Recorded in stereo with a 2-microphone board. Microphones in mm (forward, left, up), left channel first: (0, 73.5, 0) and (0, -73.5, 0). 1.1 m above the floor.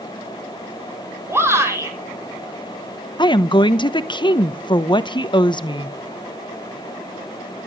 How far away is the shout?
About 6 m.